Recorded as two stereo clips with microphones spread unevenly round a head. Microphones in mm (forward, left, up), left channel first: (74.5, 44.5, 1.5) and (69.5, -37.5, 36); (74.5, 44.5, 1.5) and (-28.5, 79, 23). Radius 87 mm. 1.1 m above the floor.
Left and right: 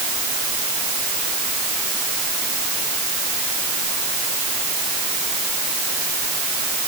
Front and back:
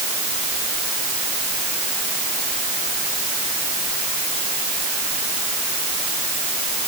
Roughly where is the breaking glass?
I don't hear breaking glass.